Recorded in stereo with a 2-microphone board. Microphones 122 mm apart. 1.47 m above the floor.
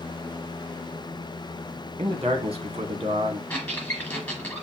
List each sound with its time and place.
2.0 s a man speaking: 50° right (ahead or behind), 1.4 m
3.5 s a squeak: 10° left (ahead or behind), 2 m